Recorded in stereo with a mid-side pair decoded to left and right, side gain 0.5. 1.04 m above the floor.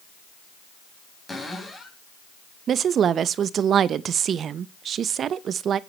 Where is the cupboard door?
15° left, 4 m.